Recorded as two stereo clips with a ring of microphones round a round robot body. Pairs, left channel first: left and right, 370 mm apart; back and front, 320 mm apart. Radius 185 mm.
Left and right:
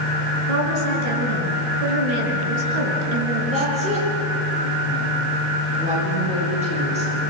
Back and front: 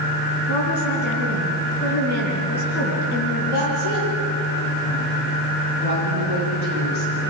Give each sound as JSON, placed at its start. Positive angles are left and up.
{"t": 0.5, "sound": "a woman speaking", "azimuth_deg": -115, "distance_m": 5.5}
{"t": 3.5, "sound": "a woman speaking", "azimuth_deg": -165, "distance_m": 9.0}